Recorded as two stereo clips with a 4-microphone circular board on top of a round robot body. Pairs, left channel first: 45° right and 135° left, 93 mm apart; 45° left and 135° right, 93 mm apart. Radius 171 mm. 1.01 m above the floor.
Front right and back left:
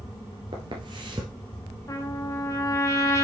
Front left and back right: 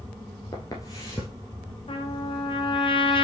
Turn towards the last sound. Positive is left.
turn(degrees=15)